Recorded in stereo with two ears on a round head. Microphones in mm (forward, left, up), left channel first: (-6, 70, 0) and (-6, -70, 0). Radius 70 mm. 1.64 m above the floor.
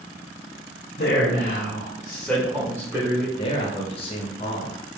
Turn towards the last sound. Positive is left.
turn(degrees=35)  # may be behind; listen again after turning